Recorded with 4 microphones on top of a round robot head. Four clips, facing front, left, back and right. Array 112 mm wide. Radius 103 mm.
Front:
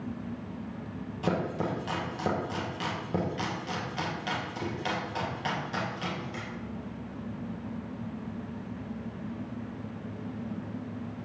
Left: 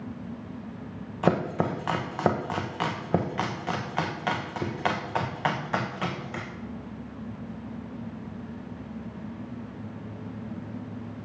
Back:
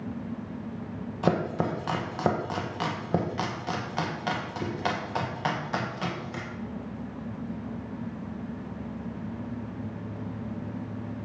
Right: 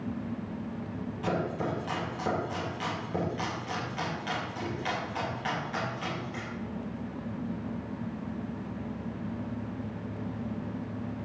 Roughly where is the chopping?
Behind left.